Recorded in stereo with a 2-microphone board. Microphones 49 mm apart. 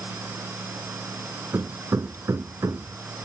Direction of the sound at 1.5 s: 85° right.